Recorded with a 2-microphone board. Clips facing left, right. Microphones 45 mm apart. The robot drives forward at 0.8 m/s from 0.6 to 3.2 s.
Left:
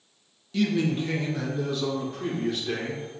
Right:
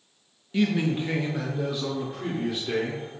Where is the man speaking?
25° right (ahead or behind), 0.7 m; by 3.2 s 5° right (ahead or behind), 2.5 m.